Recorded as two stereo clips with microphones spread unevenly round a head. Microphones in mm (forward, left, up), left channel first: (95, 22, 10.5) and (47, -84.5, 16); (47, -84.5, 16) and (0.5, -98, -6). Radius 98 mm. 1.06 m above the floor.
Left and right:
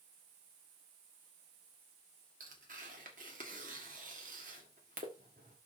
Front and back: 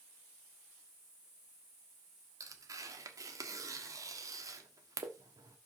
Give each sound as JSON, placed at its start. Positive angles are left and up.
{"t": 2.4, "sound": "tearing paper", "azimuth_deg": -160, "distance_m": 1.2}